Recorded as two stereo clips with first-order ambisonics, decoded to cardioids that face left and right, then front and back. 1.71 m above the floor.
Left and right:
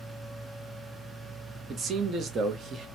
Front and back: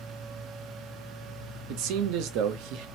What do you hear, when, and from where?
1.7 s a man speaking: 155° right, 0.6 m